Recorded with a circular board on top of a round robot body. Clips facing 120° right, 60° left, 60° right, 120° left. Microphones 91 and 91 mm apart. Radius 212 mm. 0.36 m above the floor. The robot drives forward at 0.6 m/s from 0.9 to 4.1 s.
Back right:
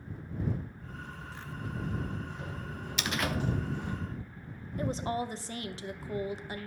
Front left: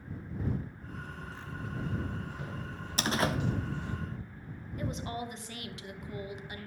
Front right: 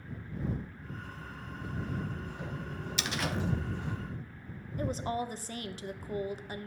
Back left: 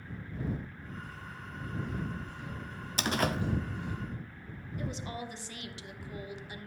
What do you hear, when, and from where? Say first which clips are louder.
1.0 s footsteps: back right 1 dB, even; 10° left, 2 m; by 4.0 s 90° right, 1.5 m
3.0 s a door slam: front left 3 dB, back left 5 dB; 95° left, 1.1 m; by 3.4 s 115° left, 1.2 m
4.8 s a woman speaking: back right 5 dB, front right 6 dB; 80° right, 1.1 m